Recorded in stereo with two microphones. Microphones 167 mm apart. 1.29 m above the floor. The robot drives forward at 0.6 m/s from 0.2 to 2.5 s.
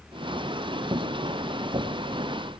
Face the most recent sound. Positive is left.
No sound to turn to.